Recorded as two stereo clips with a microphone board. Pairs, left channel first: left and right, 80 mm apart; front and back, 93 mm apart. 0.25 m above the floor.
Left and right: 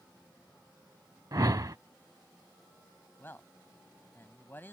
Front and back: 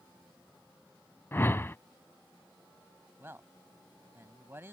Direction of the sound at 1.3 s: 60° right.